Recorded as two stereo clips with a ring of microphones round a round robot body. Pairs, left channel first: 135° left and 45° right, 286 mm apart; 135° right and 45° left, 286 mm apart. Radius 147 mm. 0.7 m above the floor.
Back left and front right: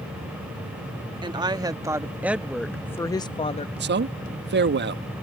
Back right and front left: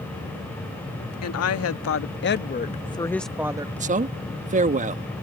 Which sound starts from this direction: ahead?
A man speaking, at 3.8 s.